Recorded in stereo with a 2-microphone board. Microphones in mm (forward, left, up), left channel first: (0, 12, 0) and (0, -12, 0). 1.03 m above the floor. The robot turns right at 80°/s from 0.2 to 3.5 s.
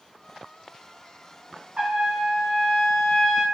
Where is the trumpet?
110° right, 0.8 m; by 3.4 s 25° left, 0.8 m.